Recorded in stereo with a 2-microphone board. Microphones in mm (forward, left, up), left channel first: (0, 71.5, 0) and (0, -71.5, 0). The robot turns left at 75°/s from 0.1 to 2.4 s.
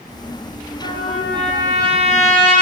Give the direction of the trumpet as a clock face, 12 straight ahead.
10 o'clock.